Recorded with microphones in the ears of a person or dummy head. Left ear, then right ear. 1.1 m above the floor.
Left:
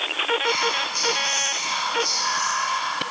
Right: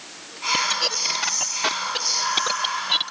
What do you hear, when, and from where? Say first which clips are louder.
0.4 s whispering: even; 10° right (ahead or behind), 1.1 m